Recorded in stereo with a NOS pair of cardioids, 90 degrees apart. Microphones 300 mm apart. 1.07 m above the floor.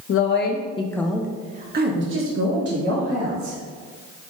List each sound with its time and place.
0.1 s a woman speaking: 50° left, 0.9 m; by 3.6 s 65° right, 1.9 m